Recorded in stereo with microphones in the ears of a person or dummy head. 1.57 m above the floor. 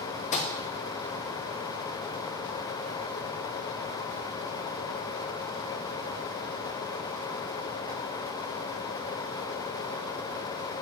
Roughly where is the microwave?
Left.